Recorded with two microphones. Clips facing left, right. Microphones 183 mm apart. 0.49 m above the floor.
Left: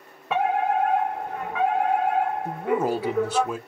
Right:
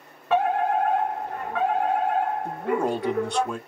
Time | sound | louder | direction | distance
0.3 | a fire alarm | right 1 dB | 10° left (ahead or behind) | 2.5 m
2.5 | a man speaking | left 1 dB | 5° left (ahead or behind) | 0.7 m